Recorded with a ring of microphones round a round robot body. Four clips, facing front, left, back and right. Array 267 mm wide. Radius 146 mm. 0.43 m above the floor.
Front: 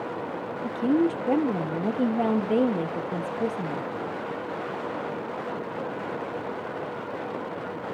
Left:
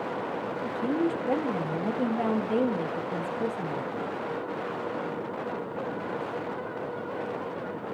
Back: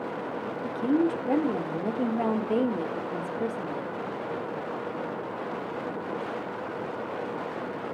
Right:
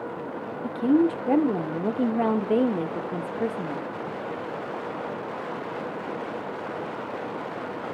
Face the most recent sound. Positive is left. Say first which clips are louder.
# right 7 dB, front 2 dB
turn(degrees=-75)